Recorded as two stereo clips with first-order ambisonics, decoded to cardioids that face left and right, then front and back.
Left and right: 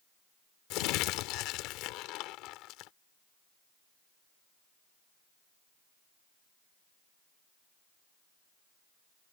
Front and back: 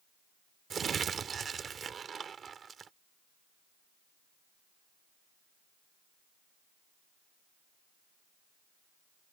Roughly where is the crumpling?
Behind left.